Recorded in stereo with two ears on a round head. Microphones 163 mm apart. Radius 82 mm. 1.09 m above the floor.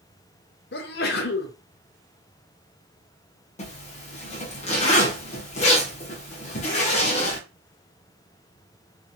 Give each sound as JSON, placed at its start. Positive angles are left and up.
{"t": 0.7, "sound": "a sneeze", "side_deg": 55, "distance_m": 0.6}
{"t": 3.6, "sound": "a zipper", "side_deg": 35, "distance_m": 0.8}